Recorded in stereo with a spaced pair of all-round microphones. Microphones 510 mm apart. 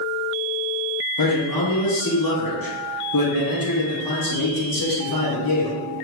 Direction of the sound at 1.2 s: 40° left (ahead or behind).